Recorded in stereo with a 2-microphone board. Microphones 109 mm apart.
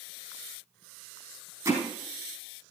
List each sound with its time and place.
1.6 s hammering: 30° right (ahead or behind), 4 m